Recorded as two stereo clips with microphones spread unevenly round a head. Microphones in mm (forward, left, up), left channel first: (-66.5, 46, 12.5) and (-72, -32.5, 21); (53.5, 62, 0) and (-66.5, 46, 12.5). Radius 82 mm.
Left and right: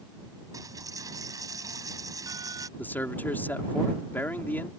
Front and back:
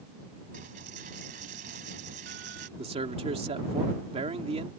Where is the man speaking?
155° left.